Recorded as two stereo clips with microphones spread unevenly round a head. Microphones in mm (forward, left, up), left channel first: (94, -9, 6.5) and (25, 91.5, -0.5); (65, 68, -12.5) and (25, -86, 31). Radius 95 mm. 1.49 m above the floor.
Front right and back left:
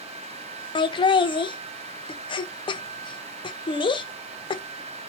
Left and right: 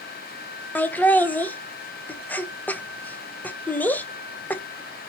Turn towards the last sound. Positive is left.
turn(degrees=-5)